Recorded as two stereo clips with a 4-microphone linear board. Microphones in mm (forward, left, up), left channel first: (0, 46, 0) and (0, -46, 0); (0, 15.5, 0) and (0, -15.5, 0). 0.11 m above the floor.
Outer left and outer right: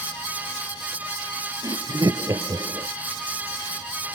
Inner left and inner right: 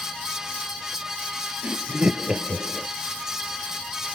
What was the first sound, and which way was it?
Laughter, 45° right (ahead or behind).